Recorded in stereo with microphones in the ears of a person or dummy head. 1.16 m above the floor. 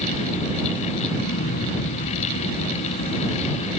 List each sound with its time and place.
1.1 s an explosion: 60° left (ahead or behind)